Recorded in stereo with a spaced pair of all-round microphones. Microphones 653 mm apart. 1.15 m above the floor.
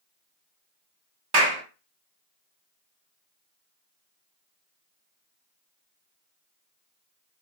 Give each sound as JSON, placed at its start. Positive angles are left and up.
{"t": 1.3, "sound": "a clap", "side_deg": -75, "distance_m": 1.3}